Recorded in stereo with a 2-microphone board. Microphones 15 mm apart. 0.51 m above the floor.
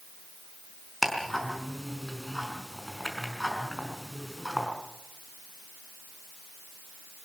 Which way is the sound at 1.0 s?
10° left (ahead or behind).